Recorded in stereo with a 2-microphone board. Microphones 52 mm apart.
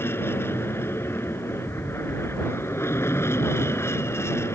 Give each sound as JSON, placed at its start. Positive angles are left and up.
{"t": 0.0, "sound": "an aircraft", "side_deg": 50}